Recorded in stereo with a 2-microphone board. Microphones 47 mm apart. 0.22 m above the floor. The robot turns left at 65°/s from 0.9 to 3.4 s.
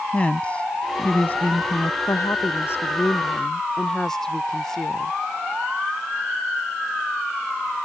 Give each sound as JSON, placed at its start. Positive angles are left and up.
{"t": 0.1, "sound": "a woman speaking", "azimuth_deg": 140}
{"t": 2.1, "sound": "a woman speaking", "azimuth_deg": 95}